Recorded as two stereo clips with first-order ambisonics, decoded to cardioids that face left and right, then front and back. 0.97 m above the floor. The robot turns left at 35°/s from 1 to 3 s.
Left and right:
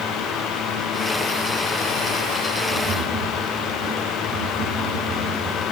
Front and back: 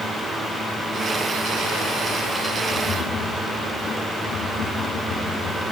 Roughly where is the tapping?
Ahead right.